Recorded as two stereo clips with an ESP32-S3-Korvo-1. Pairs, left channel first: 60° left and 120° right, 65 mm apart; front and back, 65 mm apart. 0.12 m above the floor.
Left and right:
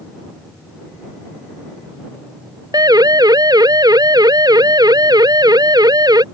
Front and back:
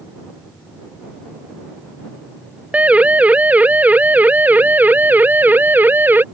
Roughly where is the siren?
Right.